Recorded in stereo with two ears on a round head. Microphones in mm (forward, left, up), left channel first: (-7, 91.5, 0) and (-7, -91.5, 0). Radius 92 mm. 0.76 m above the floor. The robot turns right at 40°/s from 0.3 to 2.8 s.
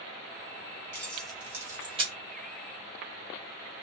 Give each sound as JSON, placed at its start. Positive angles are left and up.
{"t": 0.9, "sound": "keys jangling", "side_deg": 10, "distance_m": 1.1}